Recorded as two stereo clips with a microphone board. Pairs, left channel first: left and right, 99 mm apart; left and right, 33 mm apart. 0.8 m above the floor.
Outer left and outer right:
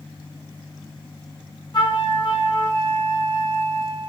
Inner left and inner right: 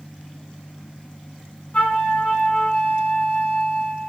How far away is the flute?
About 1.6 m.